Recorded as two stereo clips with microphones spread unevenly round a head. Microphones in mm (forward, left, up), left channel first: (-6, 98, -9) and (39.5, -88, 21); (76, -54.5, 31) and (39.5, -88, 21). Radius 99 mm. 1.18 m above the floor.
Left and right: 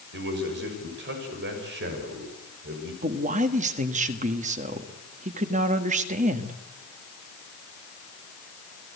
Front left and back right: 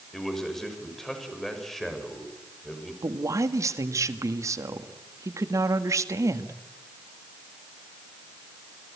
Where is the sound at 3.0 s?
130° right, 1.6 m.